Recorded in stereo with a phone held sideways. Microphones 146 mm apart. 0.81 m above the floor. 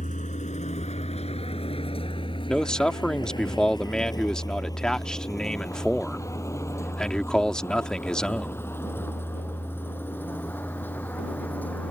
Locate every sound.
0.0 s a vehicle: 60° left (ahead or behind); by 11.9 s 10° left (ahead or behind)
2.5 s a man speaking: 5° left (ahead or behind)